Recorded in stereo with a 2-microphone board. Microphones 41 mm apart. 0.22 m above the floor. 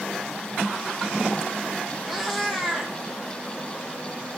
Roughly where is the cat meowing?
Centre.